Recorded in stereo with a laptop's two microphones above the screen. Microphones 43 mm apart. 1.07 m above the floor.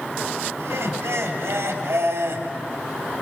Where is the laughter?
80° right, 3 m.